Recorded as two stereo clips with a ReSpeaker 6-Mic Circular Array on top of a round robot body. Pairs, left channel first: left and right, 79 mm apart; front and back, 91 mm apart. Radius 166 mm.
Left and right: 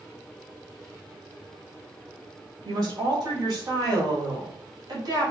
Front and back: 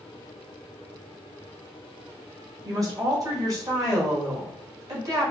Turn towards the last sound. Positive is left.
turn(degrees=-130)